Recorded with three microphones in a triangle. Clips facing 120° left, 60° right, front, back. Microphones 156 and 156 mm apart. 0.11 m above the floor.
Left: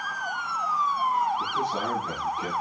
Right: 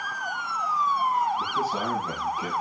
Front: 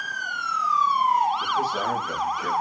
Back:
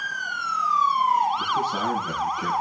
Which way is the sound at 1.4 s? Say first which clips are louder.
Right 1 dB, even; 145° right.